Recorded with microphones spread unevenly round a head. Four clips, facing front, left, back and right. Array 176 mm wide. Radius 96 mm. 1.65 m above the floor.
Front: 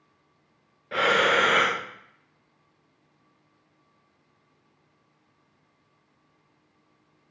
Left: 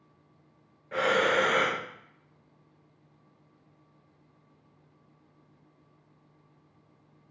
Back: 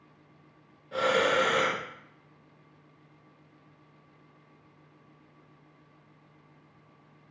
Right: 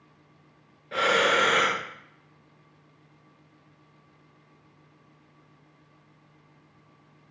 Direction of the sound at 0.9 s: 20° right.